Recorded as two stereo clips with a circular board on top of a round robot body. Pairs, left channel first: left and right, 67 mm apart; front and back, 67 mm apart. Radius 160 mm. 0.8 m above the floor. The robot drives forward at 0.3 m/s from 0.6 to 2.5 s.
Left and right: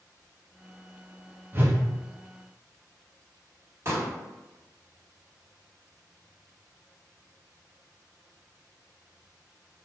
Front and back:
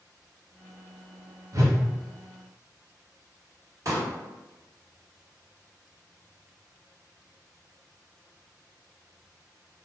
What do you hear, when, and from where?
1.5 s a whoosh: 150° right, 0.7 m
3.9 s a pop: 140° right, 1.1 m